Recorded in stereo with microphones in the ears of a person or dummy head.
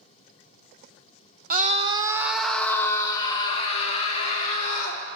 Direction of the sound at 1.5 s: 45° right (ahead or behind).